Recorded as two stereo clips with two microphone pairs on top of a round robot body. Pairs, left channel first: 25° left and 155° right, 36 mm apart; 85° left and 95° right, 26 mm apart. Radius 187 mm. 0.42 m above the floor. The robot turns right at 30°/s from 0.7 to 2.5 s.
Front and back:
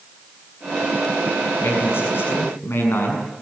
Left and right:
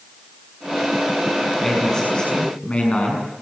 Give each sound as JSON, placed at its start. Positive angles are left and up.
{"t": 1.6, "sound": "a man speaking", "azimuth_deg": 10, "distance_m": 7.0}